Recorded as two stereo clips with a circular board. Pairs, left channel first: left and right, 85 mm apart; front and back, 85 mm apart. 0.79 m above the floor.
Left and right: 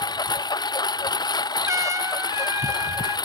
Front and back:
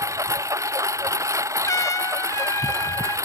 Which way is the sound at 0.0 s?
130° left.